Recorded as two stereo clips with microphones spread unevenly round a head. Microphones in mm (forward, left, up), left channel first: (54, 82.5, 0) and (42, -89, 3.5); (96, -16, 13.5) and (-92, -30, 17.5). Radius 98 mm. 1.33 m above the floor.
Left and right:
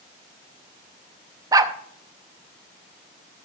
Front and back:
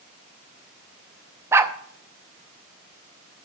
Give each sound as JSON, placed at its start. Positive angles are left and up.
{"t": 1.5, "sound": "a dog barking", "azimuth_deg": -120, "distance_m": 0.7}